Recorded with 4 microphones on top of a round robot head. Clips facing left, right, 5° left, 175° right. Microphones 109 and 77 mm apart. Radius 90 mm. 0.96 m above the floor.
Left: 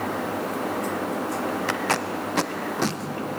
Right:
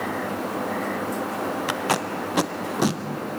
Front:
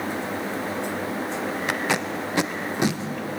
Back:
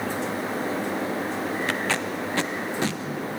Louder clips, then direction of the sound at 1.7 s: Right 1 dB, front 1 dB; 35° right.